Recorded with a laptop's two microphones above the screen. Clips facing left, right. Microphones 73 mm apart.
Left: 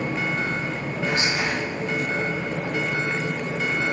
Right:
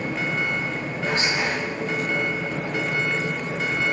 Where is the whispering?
35° right (ahead or behind), 1.1 m.